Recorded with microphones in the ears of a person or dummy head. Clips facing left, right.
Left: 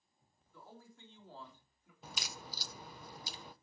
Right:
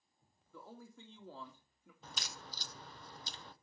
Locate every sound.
0.5 s a man speaking: 50° right (ahead or behind), 2.5 m
2.0 s a crack: 10° left (ahead or behind), 0.7 m